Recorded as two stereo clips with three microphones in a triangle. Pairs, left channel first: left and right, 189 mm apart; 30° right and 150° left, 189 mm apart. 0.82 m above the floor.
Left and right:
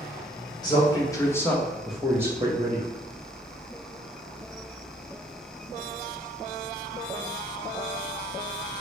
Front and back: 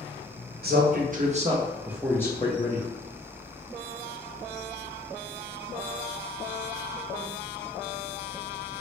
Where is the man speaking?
150° left, 0.9 m; by 2.9 s 40° right, 0.7 m.